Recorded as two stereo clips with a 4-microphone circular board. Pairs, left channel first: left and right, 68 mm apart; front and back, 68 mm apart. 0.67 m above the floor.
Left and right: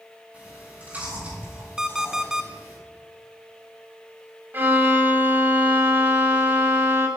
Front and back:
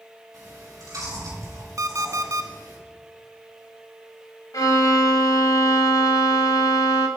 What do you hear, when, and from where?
0.3 s chewing: 155° right, 4.5 m
1.8 s an alarm clock: 170° right, 0.6 m
4.5 s a violin: 30° right, 0.9 m